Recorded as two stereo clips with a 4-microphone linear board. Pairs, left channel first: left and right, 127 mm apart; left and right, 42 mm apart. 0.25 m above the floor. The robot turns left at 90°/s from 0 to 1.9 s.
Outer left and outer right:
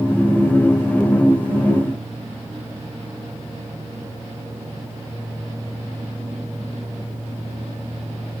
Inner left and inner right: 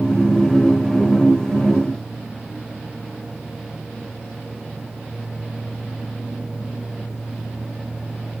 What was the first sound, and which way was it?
Only background noise.